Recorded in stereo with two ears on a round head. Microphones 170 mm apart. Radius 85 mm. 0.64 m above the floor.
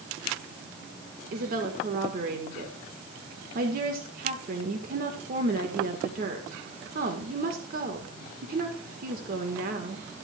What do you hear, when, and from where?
1.3 s a woman speaking: 50° right (ahead or behind), 1.8 m